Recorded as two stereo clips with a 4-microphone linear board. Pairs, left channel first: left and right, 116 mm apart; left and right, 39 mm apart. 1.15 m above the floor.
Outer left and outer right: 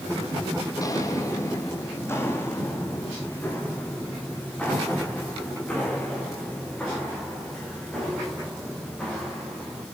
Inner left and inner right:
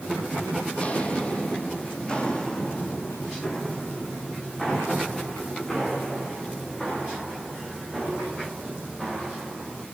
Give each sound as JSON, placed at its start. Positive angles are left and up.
{"t": 0.7, "sound": "footsteps", "side_deg": 30, "distance_m": 2.5}